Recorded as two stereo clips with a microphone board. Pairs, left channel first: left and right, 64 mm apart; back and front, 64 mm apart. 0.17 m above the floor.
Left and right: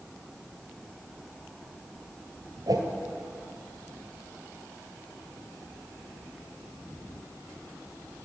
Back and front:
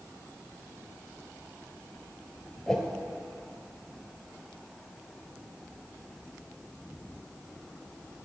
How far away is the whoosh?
About 1.7 m.